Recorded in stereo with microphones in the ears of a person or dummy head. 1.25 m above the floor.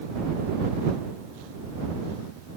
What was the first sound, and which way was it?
Only background noise.